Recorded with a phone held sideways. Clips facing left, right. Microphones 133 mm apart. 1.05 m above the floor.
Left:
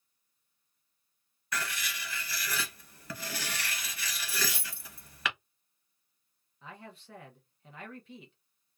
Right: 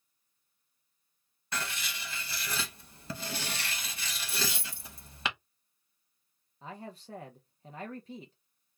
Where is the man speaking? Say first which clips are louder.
Right 4 dB; 35° right (ahead or behind), 0.7 m.